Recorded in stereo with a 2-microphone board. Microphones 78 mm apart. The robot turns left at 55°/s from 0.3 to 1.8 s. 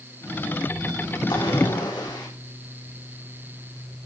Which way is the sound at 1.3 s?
80° left.